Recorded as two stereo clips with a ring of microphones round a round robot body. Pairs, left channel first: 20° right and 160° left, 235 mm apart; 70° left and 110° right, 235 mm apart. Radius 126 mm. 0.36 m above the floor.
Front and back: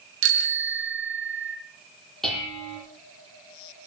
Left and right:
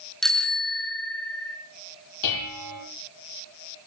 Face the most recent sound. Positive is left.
turn(degrees=65)